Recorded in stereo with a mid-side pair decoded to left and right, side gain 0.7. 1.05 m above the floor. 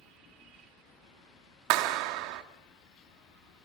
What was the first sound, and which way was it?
A clap, 65° right.